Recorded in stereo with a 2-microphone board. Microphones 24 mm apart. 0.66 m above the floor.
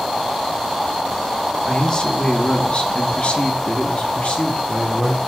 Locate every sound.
1.7 s a man speaking: 25° left (ahead or behind), 1.4 m; by 5.2 s 50° left (ahead or behind), 1.6 m